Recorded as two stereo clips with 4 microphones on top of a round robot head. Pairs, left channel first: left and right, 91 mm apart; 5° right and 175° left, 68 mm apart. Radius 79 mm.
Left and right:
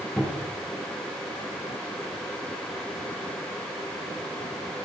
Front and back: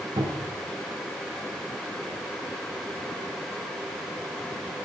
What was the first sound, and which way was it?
A cupboard door, 165° left.